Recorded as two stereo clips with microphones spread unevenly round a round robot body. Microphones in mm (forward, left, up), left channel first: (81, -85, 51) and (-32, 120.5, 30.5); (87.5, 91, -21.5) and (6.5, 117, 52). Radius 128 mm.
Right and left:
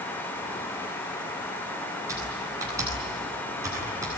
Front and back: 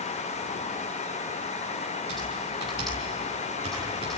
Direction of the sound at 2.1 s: 165° right.